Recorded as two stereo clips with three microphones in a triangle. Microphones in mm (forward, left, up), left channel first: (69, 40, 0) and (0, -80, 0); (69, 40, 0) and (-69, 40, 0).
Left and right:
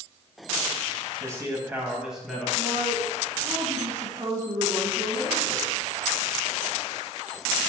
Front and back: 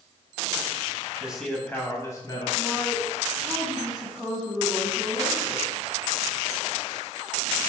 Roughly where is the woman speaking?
Right.